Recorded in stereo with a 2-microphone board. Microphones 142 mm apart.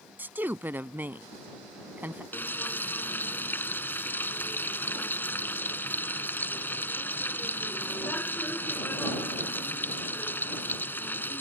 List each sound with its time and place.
0.2 s a woman speaking: 15° right (ahead or behind)
2.3 s frying: 15° left (ahead or behind)